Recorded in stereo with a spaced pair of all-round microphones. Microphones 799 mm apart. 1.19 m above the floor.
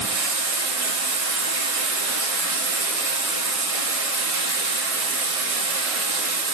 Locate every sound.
0.0 s running water: 50° right (ahead or behind), 0.7 m